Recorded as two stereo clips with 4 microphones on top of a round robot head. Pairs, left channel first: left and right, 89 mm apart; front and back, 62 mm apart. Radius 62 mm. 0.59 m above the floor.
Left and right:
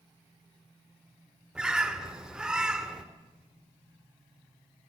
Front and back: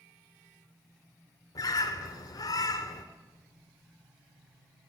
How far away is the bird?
About 2 m.